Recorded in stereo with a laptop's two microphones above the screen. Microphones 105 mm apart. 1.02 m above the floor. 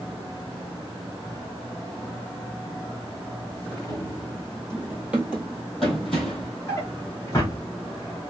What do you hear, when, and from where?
3.9 s running footsteps: 40° right (ahead or behind), 1.2 m; by 6.5 s 10° left (ahead or behind), 2.0 m
6.7 s a drawer: 30° left (ahead or behind), 0.9 m